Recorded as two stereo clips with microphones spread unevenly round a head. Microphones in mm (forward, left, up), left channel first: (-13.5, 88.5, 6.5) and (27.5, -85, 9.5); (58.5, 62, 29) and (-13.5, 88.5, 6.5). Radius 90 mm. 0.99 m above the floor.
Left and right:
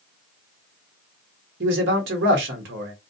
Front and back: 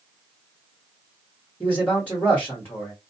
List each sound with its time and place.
1.6 s a man speaking: 100° right, 1.0 m